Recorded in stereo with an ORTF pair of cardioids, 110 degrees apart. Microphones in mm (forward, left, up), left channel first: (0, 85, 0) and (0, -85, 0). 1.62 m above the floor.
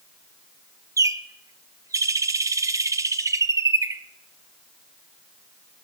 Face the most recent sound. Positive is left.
turn(degrees=-20)